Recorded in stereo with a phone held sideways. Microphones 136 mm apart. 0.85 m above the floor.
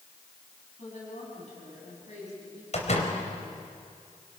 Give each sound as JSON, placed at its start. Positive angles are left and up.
{"t": 0.8, "sound": "a woman speaking", "side_deg": 60, "distance_m": 8.0}
{"t": 2.7, "sound": "a door slam", "side_deg": 55, "distance_m": 4.0}